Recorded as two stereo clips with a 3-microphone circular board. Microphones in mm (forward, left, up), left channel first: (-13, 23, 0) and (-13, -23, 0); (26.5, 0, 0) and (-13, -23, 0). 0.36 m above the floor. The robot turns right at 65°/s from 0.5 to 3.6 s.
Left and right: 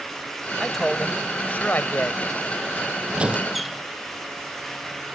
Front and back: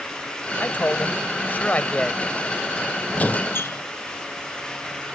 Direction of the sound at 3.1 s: 30° right.